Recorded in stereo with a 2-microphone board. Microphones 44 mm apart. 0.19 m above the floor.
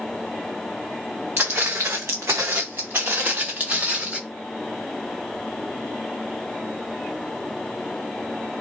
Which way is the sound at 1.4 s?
50° right (ahead or behind).